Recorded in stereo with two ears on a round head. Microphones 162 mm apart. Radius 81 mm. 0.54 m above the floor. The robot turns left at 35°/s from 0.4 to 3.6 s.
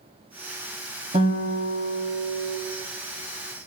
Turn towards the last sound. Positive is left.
turn(degrees=-125)